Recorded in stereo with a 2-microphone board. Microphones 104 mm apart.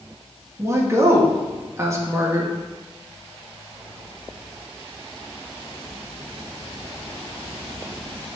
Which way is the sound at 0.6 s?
25° right (ahead or behind).